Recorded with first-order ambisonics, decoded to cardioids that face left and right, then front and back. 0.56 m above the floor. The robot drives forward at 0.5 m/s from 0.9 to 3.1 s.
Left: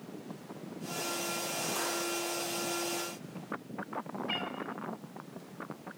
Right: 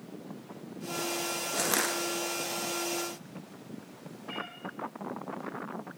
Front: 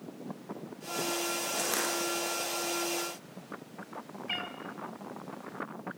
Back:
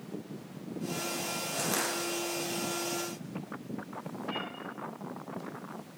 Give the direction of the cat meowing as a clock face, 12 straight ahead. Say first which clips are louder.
Left 2 dB, front 2 dB; 11 o'clock.